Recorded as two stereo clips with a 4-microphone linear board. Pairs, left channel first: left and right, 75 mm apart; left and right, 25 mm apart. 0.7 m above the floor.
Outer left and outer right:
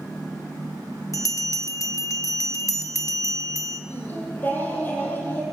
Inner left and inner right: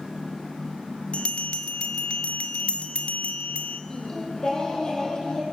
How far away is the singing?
About 6.5 m.